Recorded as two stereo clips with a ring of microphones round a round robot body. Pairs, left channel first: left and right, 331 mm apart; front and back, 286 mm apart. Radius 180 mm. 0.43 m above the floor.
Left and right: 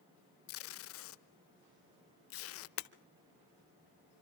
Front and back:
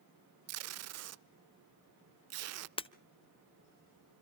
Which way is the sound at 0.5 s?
140° left.